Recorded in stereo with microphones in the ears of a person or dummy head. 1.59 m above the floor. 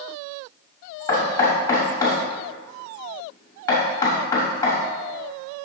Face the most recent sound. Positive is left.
turn(degrees=20)  # may be behind; listen again after turning